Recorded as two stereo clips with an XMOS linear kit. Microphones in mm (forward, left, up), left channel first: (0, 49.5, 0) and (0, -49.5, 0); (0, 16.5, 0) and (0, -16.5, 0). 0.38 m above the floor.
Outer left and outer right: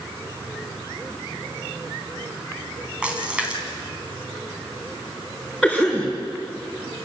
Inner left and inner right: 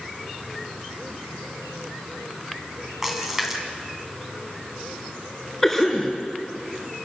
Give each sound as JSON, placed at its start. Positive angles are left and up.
{"t": 3.0, "sound": "a splash", "side_deg": -10, "distance_m": 3.0}
{"t": 5.6, "sound": "a cough", "side_deg": -5, "distance_m": 3.5}